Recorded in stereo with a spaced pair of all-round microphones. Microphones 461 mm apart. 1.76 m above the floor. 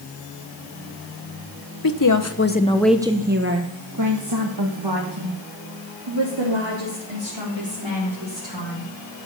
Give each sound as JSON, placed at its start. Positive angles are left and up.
{"t": 1.8, "sound": "a woman speaking", "side_deg": 50, "distance_m": 1.2}